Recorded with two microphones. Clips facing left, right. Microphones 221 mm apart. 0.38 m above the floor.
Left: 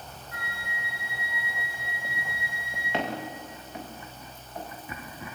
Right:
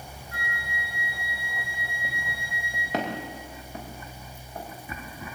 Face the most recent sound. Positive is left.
turn(degrees=-30)  # may be behind; listen again after turning